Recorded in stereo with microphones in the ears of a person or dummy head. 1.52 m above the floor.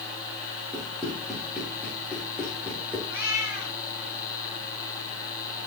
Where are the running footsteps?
5° left (ahead or behind), 5 m; by 3.0 s 5° right (ahead or behind), 3.5 m.